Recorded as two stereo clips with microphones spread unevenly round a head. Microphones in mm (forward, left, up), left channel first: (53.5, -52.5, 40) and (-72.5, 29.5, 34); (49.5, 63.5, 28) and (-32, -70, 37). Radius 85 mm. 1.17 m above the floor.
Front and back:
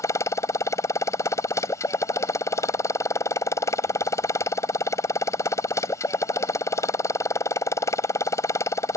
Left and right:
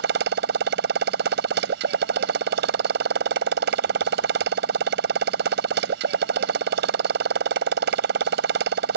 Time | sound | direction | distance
0.0 | a motorcycle | 105° right | ?